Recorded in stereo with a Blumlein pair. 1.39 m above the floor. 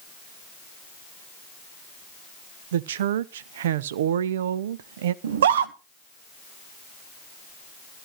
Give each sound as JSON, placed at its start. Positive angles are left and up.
{"t": 2.7, "sound": "a woman speaking", "azimuth_deg": -60, "distance_m": 0.7}
{"t": 5.2, "sound": "a scream", "azimuth_deg": -60, "distance_m": 1.3}